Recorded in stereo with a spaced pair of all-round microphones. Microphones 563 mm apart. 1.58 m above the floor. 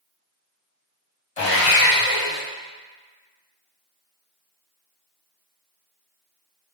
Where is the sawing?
70° left (ahead or behind), 0.9 m.